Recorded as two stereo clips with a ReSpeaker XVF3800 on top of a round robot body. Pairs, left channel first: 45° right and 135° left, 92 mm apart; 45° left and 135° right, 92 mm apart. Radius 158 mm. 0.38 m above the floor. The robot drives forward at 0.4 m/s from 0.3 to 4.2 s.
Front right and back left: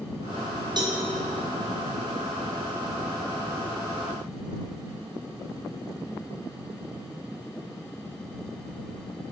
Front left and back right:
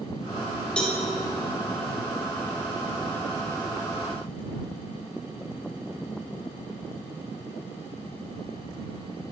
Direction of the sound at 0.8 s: 125° left.